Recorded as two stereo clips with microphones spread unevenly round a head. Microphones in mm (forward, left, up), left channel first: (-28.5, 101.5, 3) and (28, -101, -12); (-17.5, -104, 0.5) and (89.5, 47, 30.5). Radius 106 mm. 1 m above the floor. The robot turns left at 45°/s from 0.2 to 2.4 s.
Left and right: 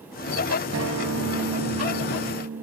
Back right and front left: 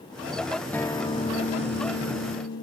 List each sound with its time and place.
0.7 s a guitar: 45° right; by 2.6 s 120° right